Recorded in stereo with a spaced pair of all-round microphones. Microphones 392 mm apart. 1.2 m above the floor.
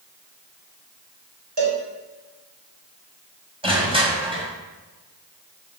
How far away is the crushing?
About 4.5 m.